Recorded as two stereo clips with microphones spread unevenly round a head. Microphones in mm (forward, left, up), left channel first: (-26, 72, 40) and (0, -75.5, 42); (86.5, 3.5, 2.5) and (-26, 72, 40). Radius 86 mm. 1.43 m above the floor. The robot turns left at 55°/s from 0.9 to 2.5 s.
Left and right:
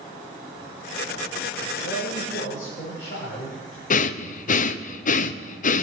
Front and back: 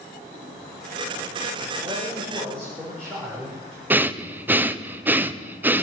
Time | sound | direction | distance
1.8 | a man speaking | 95° left | 5.5 m
3.9 | breathing | 65° left | 0.7 m